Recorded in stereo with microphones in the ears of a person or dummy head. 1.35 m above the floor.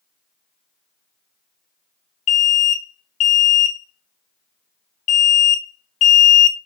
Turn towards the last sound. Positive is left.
turn(degrees=35)  # may be behind; listen again after turning